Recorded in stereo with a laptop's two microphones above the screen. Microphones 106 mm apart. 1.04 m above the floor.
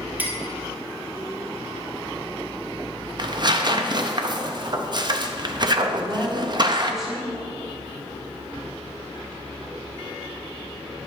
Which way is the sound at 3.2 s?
45° right (ahead or behind).